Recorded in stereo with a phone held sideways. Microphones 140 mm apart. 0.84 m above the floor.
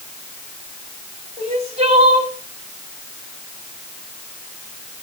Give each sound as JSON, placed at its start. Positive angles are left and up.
{"t": 1.4, "sound": "crying", "side_deg": -50, "distance_m": 2.5}